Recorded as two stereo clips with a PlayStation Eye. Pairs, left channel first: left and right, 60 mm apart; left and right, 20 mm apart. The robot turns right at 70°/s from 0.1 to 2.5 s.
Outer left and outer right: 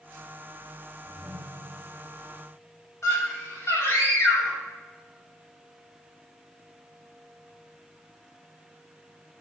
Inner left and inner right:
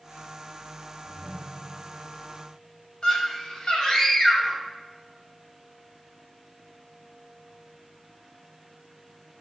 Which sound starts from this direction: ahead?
A ringtone, at 1.1 s.